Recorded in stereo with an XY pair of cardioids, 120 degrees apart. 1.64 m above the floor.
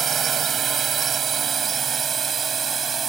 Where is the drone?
35° right; by 3.1 s 30° right.